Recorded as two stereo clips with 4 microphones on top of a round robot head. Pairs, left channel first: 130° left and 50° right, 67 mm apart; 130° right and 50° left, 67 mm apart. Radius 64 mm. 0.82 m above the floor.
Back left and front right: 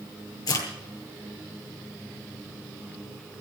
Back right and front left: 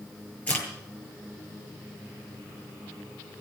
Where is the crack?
160° left, 8 m.